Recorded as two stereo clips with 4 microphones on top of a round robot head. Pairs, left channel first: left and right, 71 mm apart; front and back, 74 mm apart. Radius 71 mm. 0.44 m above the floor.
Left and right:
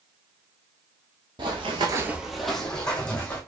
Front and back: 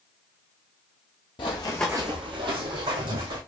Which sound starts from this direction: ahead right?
Running footsteps, at 1.4 s.